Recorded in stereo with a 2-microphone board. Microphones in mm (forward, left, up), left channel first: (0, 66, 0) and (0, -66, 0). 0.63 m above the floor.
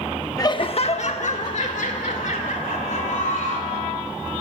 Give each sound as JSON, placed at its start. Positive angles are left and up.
{"t": 0.4, "sound": "laughter", "side_deg": 25, "distance_m": 0.6}